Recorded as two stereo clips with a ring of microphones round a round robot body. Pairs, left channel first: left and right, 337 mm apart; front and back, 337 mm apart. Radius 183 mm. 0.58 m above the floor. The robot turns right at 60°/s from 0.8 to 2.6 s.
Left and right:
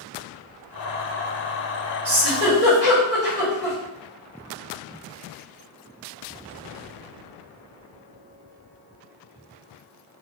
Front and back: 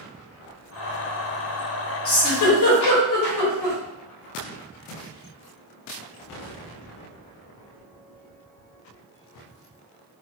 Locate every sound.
2.0 s a giggle: 45° right, 1.1 m; by 3.8 s 10° right, 1.1 m